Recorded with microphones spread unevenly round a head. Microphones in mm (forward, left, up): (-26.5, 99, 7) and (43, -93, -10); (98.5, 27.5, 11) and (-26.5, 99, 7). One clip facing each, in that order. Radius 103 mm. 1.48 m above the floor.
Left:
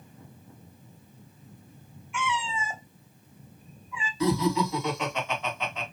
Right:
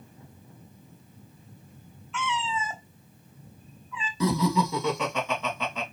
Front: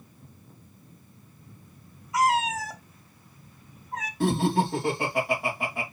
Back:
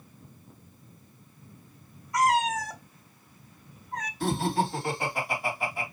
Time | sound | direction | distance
2.1 | a cat meowing | 55° left | 0.9 m
4.2 | laughter | 90° right | 2 m